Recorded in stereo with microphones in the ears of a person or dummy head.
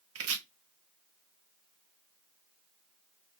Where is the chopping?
65° right (ahead or behind), 0.7 m.